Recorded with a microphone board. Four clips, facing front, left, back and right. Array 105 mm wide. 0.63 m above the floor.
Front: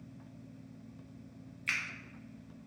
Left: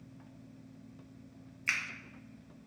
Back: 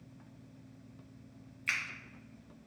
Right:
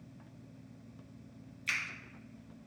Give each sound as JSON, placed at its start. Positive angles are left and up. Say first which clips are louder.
{"t": 1.7, "sound": "a finger snap", "louder": "left 2 dB, back 1 dB", "azimuth_deg": 105, "distance_m": 0.9}